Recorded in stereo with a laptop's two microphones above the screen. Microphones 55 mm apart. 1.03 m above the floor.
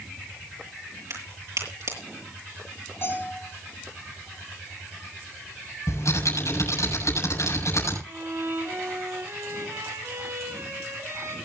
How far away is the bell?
About 7.5 m.